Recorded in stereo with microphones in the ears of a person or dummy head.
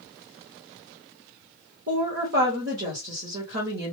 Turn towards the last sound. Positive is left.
turn(degrees=-60)  # may be behind; listen again after turning